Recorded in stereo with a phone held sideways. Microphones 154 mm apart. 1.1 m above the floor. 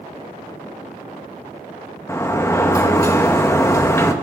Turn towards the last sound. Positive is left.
turn(degrees=20)  # may be behind; listen again after turning